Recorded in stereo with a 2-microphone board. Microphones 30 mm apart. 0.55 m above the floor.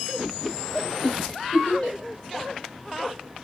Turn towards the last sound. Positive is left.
turn(degrees=40)  # may be behind; listen again after turning